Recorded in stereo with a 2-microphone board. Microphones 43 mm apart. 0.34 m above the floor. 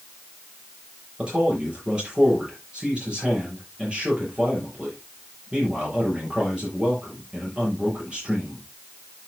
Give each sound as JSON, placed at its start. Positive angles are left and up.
{"t": 1.2, "sound": "a man speaking", "side_deg": -25, "distance_m": 7.0}